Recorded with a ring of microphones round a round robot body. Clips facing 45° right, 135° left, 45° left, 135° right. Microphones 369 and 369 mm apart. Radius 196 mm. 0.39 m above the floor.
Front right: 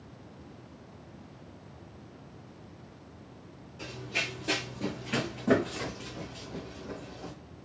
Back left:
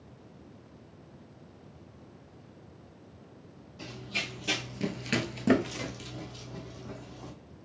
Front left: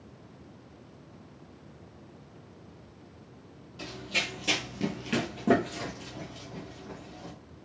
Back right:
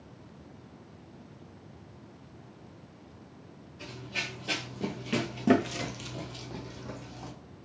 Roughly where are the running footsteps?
Ahead left.